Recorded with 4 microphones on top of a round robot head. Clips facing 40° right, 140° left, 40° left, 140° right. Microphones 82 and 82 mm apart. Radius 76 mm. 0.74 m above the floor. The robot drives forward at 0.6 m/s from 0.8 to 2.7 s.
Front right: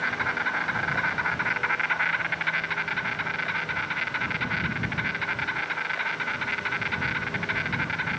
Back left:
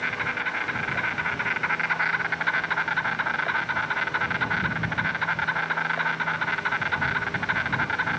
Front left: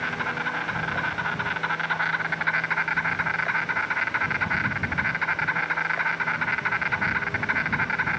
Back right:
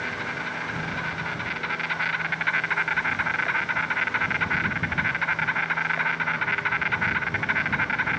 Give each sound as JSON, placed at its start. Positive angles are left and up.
{"t": 0.0, "sound": "an insect", "azimuth_deg": 25, "distance_m": 1.2}